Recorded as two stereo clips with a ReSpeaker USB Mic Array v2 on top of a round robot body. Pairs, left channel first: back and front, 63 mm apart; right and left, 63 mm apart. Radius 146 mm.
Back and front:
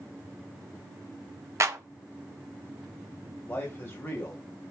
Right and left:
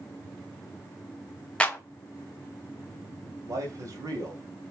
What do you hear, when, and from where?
1.6 s a clap: 20° right, 1.5 m
3.5 s a man speaking: 120° left, 3 m